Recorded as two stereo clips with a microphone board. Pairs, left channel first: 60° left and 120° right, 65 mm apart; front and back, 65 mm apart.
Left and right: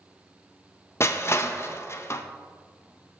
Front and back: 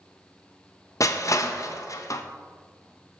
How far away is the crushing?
About 0.6 m.